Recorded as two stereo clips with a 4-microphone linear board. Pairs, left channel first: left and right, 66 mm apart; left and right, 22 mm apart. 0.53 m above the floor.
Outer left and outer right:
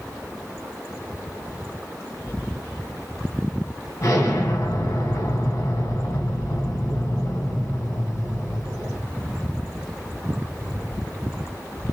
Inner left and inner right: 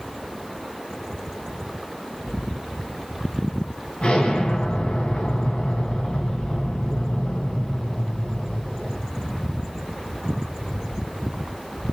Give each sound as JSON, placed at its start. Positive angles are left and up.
{"t": 4.0, "sound": "an explosion", "side_deg": 60, "distance_m": 2.5}